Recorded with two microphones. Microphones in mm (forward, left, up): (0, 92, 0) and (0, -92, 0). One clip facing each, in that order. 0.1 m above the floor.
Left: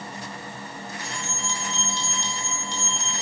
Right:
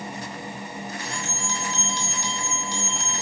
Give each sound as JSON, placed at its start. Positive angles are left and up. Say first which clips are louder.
{"t": 1.0, "sound": "a bell", "louder": "right 2 dB", "side_deg": -10, "distance_m": 4.0}